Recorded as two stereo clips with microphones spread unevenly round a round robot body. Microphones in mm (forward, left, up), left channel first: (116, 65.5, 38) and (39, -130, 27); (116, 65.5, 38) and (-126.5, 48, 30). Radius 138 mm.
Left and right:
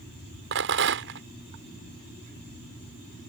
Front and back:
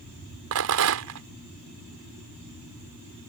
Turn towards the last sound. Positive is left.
turn(degrees=-150)